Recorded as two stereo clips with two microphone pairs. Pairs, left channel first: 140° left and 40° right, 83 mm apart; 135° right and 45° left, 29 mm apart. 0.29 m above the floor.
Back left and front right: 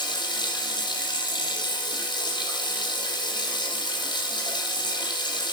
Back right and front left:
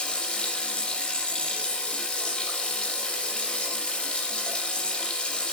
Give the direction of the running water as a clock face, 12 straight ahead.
6 o'clock.